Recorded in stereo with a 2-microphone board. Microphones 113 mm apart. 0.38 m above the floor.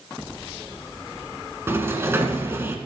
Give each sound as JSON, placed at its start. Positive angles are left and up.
{"t": 1.7, "sound": "a sliding door", "side_deg": -25, "distance_m": 1.2}